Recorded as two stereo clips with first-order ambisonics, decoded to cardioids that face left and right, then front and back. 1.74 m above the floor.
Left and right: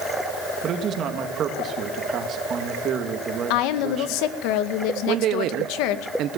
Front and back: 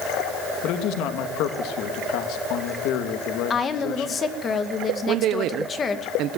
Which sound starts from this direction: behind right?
A man speaking, at 5.1 s.